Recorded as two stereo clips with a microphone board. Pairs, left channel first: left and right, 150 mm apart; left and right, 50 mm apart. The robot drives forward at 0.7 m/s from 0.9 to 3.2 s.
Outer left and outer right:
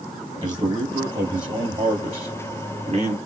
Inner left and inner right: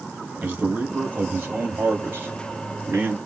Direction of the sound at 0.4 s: 30° right (ahead or behind).